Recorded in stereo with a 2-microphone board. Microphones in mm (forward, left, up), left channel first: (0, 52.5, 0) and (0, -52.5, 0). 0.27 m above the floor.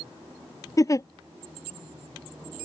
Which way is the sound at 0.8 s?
35° left (ahead or behind).